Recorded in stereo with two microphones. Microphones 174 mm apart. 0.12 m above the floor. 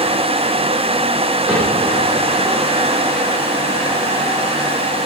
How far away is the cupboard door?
About 6 m.